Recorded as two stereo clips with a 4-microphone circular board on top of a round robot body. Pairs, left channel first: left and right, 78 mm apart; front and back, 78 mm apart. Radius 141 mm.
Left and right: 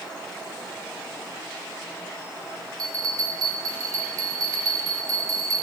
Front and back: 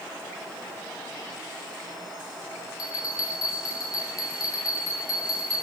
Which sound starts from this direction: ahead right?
A bell, at 2.8 s.